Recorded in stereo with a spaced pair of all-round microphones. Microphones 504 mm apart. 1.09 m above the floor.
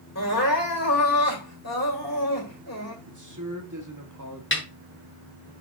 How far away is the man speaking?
About 1.8 m.